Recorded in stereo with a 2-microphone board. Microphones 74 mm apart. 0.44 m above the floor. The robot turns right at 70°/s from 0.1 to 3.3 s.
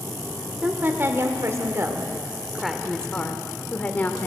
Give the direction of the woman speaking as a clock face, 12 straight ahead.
5 o'clock.